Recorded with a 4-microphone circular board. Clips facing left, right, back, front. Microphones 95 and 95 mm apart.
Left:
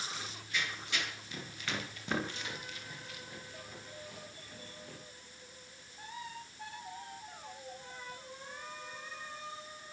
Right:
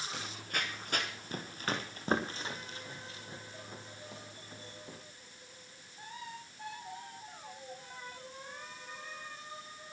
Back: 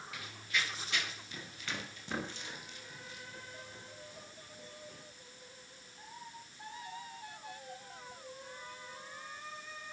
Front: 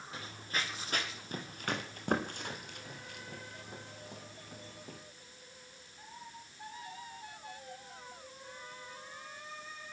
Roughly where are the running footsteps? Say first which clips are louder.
Right 2 dB, even; ahead right.